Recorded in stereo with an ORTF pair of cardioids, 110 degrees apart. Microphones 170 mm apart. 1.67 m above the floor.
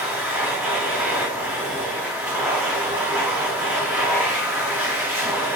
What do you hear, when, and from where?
0.0 s a machine running: 10° right, 1.9 m